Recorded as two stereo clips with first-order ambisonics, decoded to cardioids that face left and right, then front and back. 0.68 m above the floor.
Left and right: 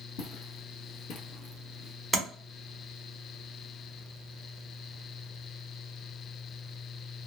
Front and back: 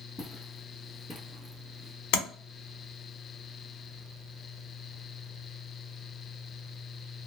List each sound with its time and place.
0.2 s footsteps: 75° left, 1.6 m; by 1.9 s 110° right, 0.7 m
2.1 s tapping: 5° right, 1.0 m